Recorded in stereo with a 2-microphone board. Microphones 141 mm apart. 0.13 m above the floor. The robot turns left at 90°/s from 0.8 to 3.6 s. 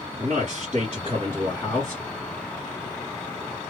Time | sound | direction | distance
0.2 | a man speaking | 100° right | 2.5 m